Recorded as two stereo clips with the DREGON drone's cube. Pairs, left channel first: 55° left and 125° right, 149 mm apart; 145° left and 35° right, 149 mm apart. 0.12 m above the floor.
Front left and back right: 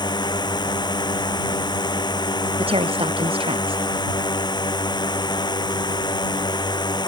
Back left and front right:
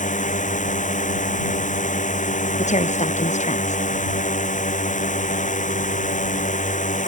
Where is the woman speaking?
175° right.